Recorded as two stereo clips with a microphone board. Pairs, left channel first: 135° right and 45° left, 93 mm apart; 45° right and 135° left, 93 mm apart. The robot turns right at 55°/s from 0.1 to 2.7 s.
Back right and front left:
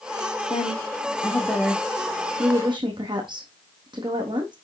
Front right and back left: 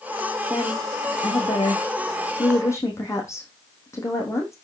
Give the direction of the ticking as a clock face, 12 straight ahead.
I don't hear ticking.